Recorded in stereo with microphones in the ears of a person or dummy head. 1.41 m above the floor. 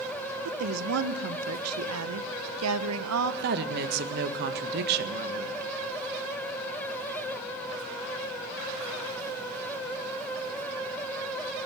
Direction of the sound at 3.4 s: 45° right (ahead or behind).